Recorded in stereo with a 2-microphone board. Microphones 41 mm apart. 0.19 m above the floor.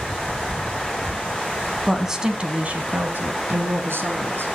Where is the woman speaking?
Centre (ahead or behind), 1.5 m; by 4.5 s 60° right (ahead or behind), 2.5 m.